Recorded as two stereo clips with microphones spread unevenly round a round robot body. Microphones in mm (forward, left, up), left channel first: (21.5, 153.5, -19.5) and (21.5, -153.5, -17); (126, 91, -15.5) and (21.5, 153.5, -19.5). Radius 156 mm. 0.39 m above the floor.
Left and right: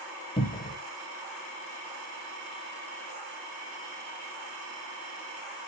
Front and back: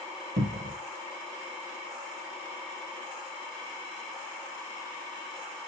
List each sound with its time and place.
0.4 s a cupboard door: 160° left, 0.6 m